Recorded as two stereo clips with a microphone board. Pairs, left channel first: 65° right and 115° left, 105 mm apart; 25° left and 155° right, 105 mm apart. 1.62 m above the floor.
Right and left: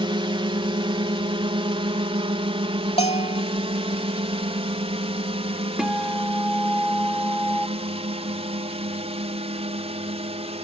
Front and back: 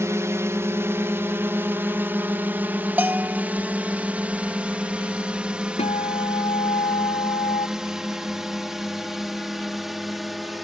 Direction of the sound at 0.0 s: 140° left.